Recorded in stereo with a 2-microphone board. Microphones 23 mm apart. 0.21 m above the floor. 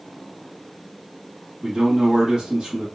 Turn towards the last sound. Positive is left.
turn(degrees=-40)  # may be behind; listen again after turning